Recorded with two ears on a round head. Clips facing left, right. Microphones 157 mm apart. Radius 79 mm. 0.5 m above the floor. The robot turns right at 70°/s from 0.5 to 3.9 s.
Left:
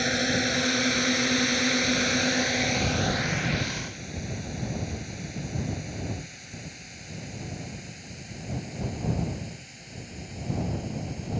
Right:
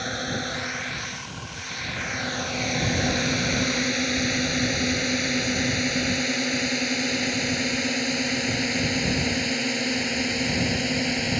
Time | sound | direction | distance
0.0 | a drone | 25° left (ahead or behind) | ?